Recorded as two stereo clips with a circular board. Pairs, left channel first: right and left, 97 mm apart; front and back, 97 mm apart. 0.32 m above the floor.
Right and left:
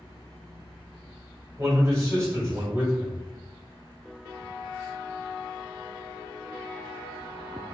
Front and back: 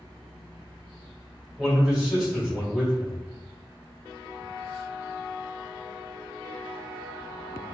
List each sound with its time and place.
1.6 s a man speaking: 100° left, 1.4 m